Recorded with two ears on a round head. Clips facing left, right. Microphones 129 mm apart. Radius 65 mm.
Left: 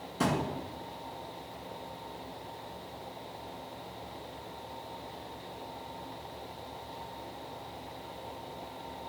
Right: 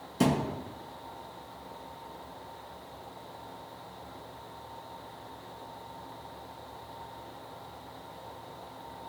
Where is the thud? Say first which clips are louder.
Right 3 dB; 20° right (ahead or behind), 1.9 m.